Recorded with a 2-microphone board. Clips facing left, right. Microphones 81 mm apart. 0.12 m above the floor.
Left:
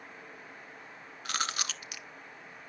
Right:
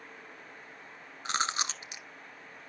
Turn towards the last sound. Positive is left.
turn(degrees=-25)  # may be behind; listen again after turning